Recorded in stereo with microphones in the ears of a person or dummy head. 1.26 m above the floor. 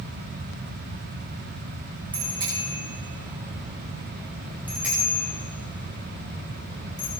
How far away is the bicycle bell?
About 6.5 m.